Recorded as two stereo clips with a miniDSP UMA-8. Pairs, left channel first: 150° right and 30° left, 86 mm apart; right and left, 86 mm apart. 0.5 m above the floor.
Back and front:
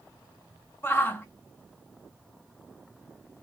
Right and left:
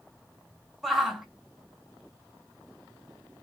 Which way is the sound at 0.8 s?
175° left.